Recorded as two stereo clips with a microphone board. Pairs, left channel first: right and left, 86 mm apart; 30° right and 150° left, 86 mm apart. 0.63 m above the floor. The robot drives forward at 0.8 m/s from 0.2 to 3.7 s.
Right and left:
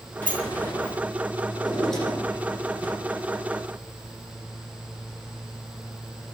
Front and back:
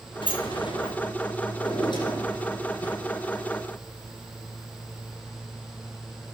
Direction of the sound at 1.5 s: 5° right.